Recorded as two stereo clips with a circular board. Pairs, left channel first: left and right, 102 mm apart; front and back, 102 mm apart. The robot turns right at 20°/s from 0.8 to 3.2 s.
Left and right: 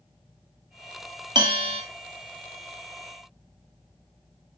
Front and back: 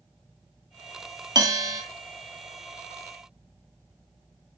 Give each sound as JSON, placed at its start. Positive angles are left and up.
{"t": 1.4, "sound": "a bell", "azimuth_deg": -130, "distance_m": 1.2}